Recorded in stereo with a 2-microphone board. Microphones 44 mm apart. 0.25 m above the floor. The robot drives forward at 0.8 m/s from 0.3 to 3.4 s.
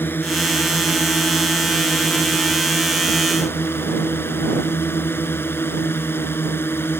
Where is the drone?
55° left (ahead or behind); by 7.0 s 65° left (ahead or behind).